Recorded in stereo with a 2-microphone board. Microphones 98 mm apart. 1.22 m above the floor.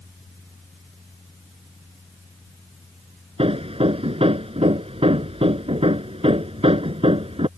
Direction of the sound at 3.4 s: 85° right.